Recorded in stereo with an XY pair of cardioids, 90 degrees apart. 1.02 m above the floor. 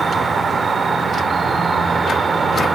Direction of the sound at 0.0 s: 45° right.